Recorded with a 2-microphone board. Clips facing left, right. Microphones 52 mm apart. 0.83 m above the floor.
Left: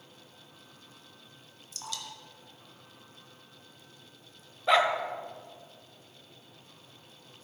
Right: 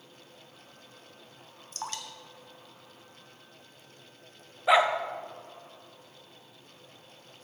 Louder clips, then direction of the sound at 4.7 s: Right 2 dB; 10° right (ahead or behind).